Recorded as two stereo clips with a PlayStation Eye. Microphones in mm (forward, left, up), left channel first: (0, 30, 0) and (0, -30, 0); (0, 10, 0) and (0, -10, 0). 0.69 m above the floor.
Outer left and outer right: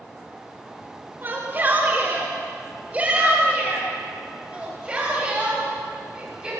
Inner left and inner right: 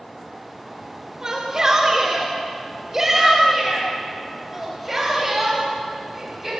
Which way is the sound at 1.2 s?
35° right (ahead or behind).